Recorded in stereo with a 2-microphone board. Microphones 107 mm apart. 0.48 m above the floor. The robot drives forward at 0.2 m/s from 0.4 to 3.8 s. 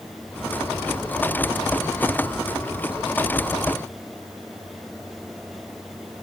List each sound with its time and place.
Only background noise.